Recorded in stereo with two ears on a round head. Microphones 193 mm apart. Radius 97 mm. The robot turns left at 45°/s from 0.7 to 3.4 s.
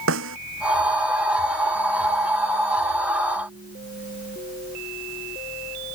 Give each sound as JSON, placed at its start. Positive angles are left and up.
{"t": 0.1, "sound": "a snare drum", "side_deg": -70}